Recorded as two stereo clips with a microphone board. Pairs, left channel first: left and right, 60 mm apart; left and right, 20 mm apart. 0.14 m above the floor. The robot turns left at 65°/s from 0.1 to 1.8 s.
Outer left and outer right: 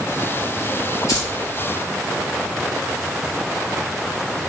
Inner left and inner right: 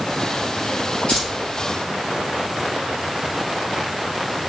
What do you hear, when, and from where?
1.1 s keys jangling: 60° left (ahead or behind), 1.7 m; by 1.3 s 65° left (ahead or behind), 1.7 m